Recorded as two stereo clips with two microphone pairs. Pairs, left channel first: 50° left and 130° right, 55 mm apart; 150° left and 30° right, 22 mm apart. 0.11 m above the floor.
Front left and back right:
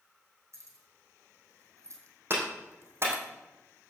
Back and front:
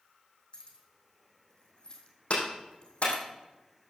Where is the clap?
175° right, 4.5 m.